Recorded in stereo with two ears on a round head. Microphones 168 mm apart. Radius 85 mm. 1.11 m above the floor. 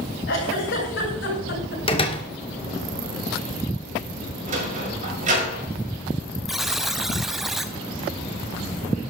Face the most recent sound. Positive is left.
turn(degrees=0)  # may be behind; listen again after turning